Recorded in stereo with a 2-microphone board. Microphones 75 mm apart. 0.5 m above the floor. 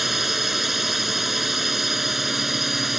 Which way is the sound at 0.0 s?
5° right (ahead or behind).